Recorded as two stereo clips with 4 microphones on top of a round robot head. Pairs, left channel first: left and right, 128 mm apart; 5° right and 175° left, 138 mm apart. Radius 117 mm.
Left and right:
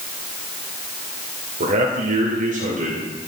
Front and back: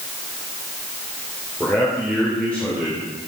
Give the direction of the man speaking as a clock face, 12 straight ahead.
3 o'clock.